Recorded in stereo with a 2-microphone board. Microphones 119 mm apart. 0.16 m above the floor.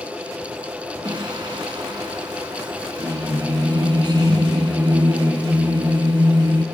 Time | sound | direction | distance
1.1 | singing | 40° right (ahead or behind) | 0.8 m